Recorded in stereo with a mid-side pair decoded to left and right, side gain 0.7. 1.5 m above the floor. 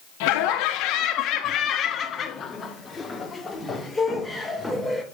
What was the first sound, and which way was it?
Laughter, 65° left.